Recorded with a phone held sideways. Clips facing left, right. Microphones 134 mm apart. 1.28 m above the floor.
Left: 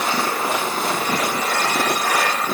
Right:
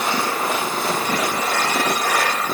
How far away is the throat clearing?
No throat clearing in this recording.